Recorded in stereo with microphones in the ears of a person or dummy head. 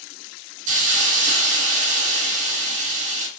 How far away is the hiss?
About 0.9 m.